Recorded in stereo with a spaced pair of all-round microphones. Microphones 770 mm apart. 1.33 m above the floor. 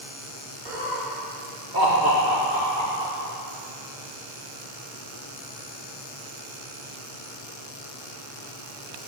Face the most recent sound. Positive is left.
turn(degrees=-80)